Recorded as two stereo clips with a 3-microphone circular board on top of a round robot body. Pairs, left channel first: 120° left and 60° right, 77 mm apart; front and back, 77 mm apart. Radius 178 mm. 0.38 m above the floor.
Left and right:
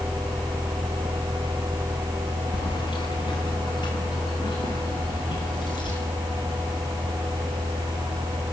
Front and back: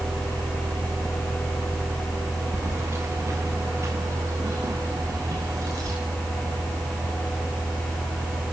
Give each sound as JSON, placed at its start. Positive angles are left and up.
{"t": 2.5, "sound": "keys jangling", "azimuth_deg": 125, "distance_m": 3.5}